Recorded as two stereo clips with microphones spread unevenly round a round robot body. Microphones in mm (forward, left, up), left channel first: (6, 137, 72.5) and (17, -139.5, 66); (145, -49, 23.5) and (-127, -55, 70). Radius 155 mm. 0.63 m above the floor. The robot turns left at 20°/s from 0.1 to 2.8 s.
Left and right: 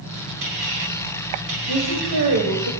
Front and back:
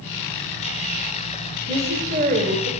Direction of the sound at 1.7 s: 105° right.